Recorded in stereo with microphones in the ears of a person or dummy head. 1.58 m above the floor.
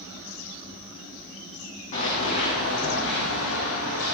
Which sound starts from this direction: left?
Running footsteps, at 1.9 s.